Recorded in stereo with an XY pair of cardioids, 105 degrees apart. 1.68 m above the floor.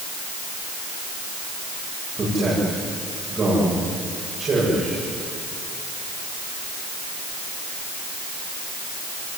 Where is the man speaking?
35° right, 9.5 m.